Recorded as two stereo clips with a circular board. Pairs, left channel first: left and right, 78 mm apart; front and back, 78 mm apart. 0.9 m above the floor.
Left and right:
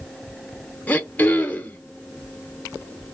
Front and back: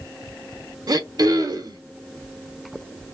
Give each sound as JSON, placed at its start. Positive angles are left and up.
{"t": 0.9, "sound": "throat clearing", "azimuth_deg": 160, "distance_m": 0.9}